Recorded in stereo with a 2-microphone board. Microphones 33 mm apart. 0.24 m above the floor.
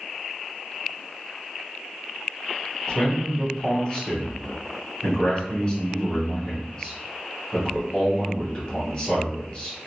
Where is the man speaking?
25° left (ahead or behind), 1.5 m.